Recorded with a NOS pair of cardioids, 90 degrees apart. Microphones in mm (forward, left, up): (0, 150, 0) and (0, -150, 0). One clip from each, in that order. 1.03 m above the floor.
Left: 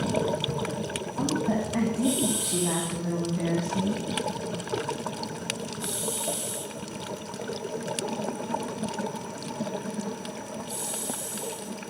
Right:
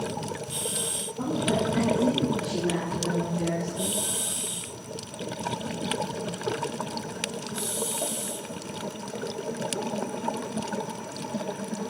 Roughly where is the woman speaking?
Ahead left.